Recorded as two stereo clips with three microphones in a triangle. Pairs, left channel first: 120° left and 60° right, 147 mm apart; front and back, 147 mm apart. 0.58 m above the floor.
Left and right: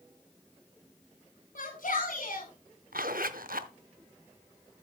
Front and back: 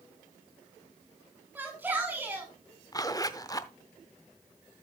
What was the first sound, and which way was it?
A shout, 100° left.